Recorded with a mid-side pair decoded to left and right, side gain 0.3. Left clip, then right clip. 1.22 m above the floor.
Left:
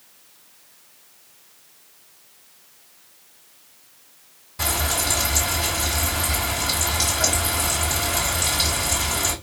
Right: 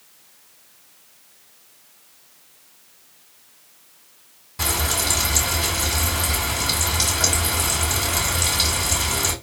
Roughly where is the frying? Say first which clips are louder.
Right 1 dB; ahead right.